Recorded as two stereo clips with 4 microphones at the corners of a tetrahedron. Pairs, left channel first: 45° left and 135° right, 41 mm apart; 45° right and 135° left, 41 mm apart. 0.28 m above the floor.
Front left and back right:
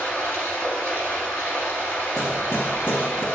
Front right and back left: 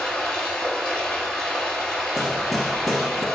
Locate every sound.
0.0 s running water: 40° left, 2.5 m
2.2 s hammering: 50° left, 0.9 m